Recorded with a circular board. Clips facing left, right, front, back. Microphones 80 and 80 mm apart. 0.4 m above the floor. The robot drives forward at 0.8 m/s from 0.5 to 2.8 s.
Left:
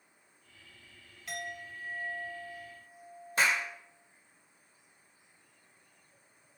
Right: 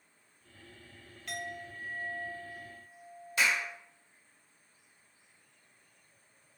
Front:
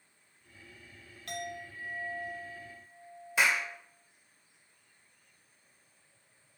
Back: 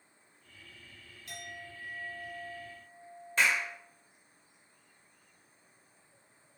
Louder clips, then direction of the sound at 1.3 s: Even, front 6 dB; 5° left.